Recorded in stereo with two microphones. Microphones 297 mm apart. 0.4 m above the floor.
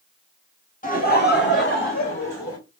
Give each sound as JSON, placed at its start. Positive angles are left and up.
{"t": 0.8, "sound": "laughter", "side_deg": 25, "distance_m": 1.3}